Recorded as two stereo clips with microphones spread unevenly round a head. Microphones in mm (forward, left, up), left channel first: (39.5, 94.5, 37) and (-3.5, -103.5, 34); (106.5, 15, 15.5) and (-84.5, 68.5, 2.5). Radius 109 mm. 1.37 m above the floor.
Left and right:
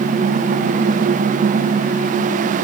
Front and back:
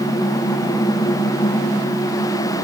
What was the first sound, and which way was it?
Only background noise.